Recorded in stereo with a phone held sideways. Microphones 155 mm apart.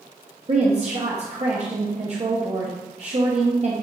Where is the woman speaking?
45° right (ahead or behind), 0.7 m.